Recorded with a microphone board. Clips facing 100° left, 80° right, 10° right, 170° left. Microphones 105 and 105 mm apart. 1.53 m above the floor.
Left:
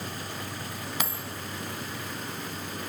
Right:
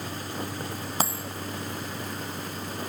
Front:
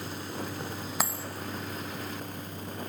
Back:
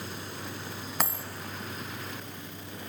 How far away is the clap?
I don't hear a clap.